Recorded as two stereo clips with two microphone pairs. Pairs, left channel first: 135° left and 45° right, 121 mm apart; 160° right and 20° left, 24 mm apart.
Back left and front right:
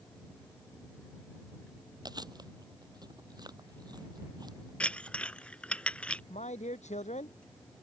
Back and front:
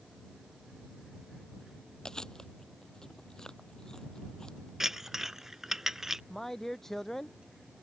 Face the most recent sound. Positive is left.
turn(degrees=130)